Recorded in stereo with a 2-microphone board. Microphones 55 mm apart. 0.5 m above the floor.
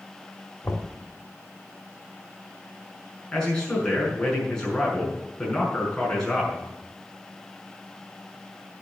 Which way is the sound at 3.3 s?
15° left (ahead or behind).